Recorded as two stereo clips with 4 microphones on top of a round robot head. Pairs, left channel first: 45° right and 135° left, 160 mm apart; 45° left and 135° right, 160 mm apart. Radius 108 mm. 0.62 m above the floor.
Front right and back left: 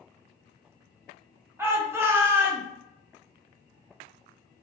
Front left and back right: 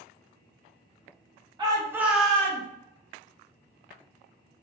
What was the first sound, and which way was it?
A shout, 165° right.